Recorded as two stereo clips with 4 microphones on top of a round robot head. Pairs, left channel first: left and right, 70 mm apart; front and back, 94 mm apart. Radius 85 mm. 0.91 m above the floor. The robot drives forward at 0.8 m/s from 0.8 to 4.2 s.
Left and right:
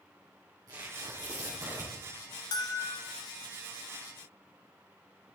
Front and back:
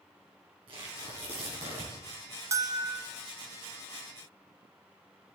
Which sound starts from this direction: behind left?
A bell, at 2.5 s.